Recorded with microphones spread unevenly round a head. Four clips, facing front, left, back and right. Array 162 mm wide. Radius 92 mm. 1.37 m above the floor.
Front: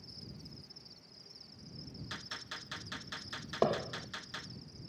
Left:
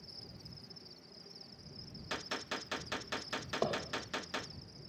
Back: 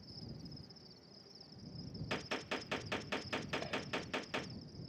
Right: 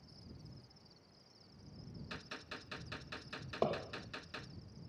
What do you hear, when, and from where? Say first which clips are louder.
0.0 s an insect: left 2 dB, back 1 dB; 105° left
2.1 s a gunshot: left 11 dB, back 9 dB; 150° left
3.6 s hammering: even, front 10 dB; straight ahead